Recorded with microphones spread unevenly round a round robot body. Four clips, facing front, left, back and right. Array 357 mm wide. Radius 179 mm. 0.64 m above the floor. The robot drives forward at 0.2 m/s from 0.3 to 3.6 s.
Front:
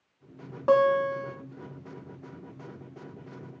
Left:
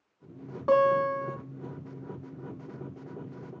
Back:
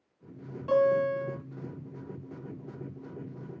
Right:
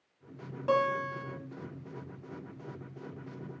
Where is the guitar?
20° left, 1.3 m; by 1.4 s 25° left, 1.2 m.